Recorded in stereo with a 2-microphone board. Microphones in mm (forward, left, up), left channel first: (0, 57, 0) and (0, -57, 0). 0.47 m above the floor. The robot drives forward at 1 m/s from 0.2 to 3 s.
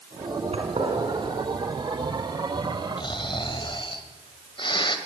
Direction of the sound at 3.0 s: 45° left (ahead or behind).